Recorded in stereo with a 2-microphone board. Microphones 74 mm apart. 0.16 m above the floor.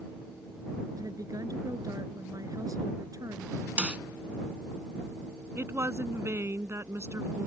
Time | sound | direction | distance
0.9 | a woman speaking | 50° right (ahead or behind) | ?
3.8 | a snare drum | 15° right (ahead or behind) | ?
5.6 | a woman speaking | 35° right (ahead or behind) | ?